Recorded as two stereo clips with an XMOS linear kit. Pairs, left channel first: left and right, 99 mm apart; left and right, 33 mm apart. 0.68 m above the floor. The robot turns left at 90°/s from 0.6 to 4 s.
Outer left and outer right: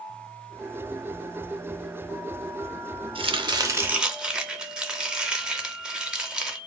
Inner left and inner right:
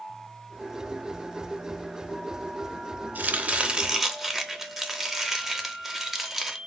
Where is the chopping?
95° right, 0.5 m; by 6.6 s 170° right, 0.5 m.